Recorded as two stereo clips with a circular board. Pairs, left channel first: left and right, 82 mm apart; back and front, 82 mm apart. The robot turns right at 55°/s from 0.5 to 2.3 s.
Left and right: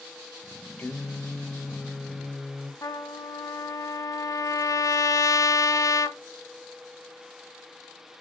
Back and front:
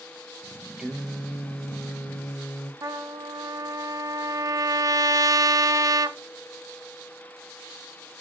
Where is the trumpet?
45° left, 0.5 m.